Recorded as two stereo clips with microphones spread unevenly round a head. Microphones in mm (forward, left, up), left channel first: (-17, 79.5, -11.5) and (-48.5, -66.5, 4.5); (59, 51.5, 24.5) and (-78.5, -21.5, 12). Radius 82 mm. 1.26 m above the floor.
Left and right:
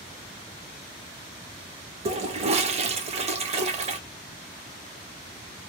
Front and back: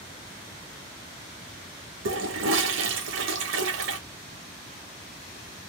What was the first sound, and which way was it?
A toilet flushing, 150° right.